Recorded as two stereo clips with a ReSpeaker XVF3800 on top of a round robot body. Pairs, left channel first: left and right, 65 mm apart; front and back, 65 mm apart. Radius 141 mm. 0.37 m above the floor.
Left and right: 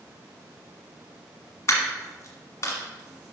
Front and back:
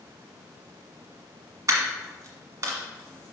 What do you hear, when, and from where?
1.7 s a dropped coin: 140° left, 1.5 m